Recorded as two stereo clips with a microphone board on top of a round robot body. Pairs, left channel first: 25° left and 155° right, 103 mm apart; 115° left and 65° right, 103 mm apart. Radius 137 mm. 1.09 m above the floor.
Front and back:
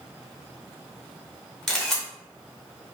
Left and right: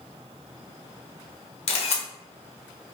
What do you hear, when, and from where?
1.7 s a camera shutter: 110° left, 0.6 m